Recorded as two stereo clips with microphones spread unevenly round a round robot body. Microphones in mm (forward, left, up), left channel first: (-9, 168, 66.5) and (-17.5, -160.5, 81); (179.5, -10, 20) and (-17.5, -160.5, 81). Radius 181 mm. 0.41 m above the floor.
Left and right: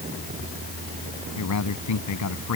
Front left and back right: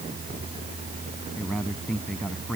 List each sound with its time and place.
1.4 s a man speaking: 125° left